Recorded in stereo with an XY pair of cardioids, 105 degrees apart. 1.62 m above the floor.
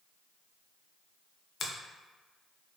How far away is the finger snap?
About 0.5 m.